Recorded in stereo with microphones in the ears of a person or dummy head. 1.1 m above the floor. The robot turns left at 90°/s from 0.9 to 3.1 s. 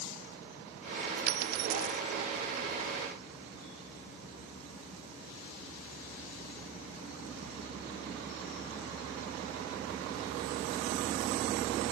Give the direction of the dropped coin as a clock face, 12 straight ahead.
3 o'clock.